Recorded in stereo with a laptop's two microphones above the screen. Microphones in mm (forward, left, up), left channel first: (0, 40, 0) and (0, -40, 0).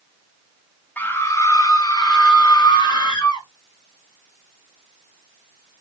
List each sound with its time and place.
1.0 s a scream: 20° left (ahead or behind), 0.6 m; by 3.5 s 75° left (ahead or behind), 1.6 m